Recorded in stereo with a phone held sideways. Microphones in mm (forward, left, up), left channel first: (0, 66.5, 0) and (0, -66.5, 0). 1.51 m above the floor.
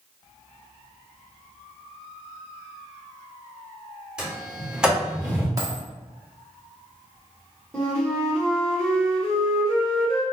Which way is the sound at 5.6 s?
25° right (ahead or behind).